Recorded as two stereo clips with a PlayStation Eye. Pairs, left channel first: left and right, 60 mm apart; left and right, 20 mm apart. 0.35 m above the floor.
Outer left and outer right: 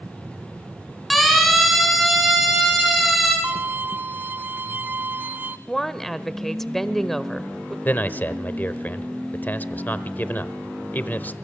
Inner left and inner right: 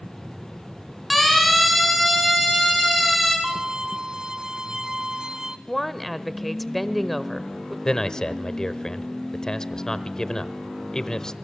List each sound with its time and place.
1.1 s a siren: centre (ahead or behind), 5.5 m
3.4 s a violin: 30° right (ahead or behind), 0.7 m
5.7 s a woman speaking: 5° left (ahead or behind), 1.1 m
7.8 s a man speaking: 30° left (ahead or behind), 1.1 m